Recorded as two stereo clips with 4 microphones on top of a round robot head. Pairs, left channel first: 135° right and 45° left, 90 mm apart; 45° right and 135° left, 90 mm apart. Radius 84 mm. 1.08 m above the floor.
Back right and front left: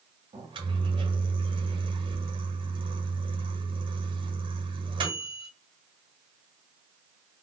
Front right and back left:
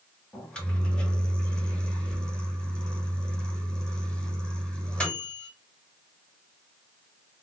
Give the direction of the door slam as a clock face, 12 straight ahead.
No door slam in this recording.